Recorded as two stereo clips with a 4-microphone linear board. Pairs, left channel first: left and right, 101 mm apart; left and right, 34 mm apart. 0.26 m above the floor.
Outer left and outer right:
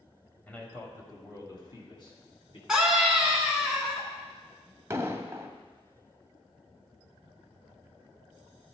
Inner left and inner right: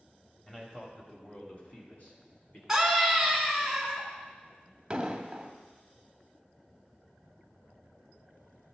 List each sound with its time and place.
0.5 s a man speaking: 15° left (ahead or behind), 1.5 m; by 2.6 s 55° left (ahead or behind), 2.5 m
2.7 s a scream: 10° right (ahead or behind), 2 m
4.9 s an explosion: 25° right (ahead or behind), 0.7 m